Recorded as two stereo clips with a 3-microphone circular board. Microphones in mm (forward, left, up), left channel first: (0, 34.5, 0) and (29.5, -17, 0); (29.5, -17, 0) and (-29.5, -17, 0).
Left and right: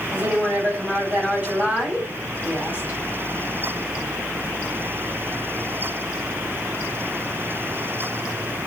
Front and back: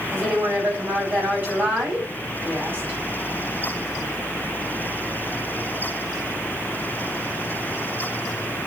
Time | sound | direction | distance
0.1 | a woman speaking | 120° right | 2.5 m